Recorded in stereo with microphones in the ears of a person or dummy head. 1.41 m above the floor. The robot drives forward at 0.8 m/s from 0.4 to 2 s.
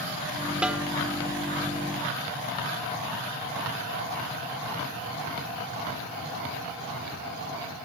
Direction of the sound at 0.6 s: 5° right (ahead or behind).